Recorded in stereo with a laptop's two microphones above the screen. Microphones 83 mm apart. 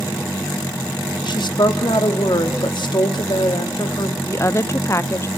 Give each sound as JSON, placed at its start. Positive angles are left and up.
{"t": 1.2, "sound": "a woman speaking", "side_deg": 65, "distance_m": 2.0}
{"t": 4.2, "sound": "a woman speaking", "side_deg": 35, "distance_m": 0.5}